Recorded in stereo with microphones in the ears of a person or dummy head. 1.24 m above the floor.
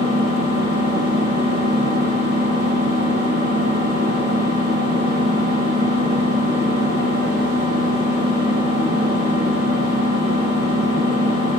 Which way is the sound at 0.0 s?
30° right (ahead or behind).